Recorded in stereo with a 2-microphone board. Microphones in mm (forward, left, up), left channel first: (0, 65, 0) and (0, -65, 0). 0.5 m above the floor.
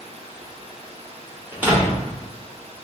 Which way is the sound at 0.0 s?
55° right (ahead or behind).